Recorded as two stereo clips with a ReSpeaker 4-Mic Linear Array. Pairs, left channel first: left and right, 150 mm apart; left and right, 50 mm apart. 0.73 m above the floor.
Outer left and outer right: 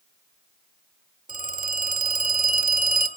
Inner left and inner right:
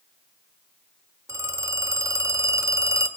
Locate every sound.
1.3 s a phone ringing: 60° right (ahead or behind), 1.1 m